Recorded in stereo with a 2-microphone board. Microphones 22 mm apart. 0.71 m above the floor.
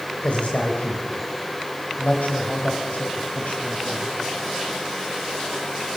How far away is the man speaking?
About 2.5 m.